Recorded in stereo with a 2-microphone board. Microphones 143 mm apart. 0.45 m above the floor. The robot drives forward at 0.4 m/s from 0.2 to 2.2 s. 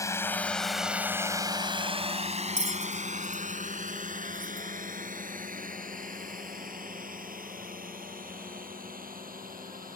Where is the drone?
25° left (ahead or behind); by 10.0 s 80° right.